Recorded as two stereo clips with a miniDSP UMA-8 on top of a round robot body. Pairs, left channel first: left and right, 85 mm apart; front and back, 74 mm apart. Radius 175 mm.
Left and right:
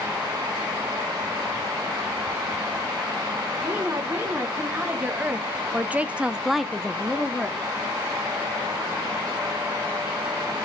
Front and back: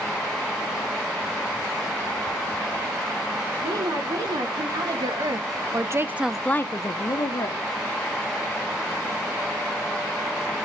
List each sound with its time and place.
3.6 s a woman speaking: 165° right, 3.5 m; by 7.7 s 15° left, 1.8 m